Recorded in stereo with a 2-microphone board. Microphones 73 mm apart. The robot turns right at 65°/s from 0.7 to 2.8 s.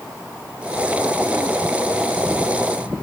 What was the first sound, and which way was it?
Only background noise.